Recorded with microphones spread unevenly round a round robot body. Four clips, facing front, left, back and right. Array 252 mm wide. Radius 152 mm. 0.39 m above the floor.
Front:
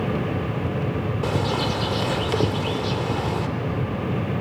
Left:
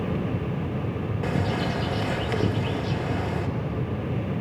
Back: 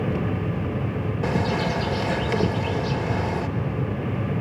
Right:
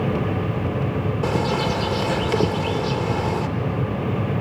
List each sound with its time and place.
1.2 s a bird: 75° right, 1.6 m